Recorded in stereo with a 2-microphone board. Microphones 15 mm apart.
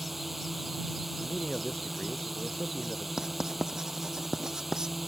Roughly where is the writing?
Right.